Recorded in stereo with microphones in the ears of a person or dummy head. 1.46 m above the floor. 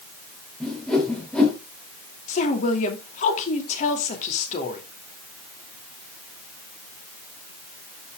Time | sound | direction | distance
0.6 | a whoosh | 10° left (ahead or behind) | 3 m
2.3 | a woman speaking | 45° left (ahead or behind) | 2.5 m